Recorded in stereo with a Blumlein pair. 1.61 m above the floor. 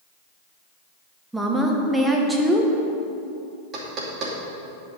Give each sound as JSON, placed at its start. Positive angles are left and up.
{"t": 1.3, "sound": "a woman speaking", "azimuth_deg": -5, "distance_m": 1.6}
{"t": 3.7, "sound": "knocking", "azimuth_deg": -30, "distance_m": 2.5}